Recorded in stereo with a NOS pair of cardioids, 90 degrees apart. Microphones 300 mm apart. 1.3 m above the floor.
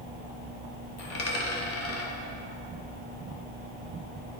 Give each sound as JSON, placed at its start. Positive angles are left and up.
{"t": 1.0, "sound": "a dropped coin", "azimuth_deg": 60, "distance_m": 1.9}